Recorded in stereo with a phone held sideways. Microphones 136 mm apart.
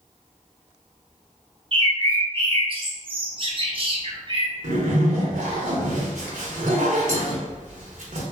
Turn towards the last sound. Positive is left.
turn(degrees=-70)  # may be behind; listen again after turning